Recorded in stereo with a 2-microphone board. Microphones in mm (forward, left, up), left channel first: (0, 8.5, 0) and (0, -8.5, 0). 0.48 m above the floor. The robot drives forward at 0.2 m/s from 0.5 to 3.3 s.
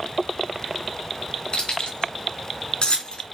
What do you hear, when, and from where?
1.5 s keys jangling: 75° left (ahead or behind), 3.5 m; by 3.2 s 70° left (ahead or behind), 3.5 m